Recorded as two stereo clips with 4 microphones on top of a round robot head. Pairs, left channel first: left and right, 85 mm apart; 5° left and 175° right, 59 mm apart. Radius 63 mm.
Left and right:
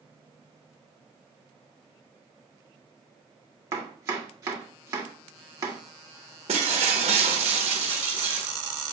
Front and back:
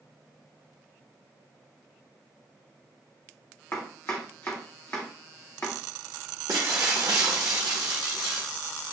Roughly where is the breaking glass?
Behind right.